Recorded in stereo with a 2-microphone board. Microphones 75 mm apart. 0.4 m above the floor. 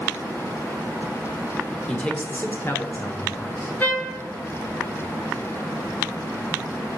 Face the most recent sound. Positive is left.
turn(degrees=20)  # may be behind; listen again after turning